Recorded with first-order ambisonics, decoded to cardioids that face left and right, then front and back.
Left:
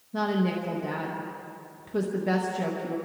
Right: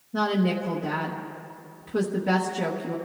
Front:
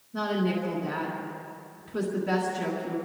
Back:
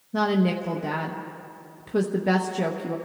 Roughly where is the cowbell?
No cowbell in this recording.